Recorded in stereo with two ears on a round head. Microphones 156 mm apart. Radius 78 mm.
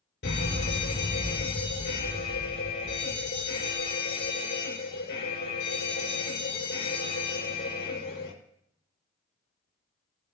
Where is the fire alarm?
60° left (ahead or behind), 5 m.